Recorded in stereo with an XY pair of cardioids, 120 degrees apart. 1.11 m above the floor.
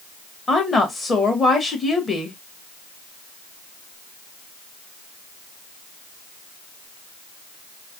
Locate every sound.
0.5 s a woman speaking: 30° left, 1.4 m